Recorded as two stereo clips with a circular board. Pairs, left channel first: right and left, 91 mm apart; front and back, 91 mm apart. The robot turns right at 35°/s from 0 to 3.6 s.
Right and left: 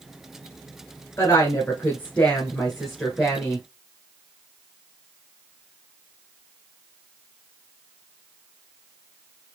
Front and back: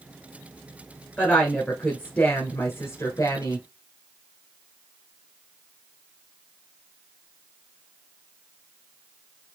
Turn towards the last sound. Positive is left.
turn(degrees=20)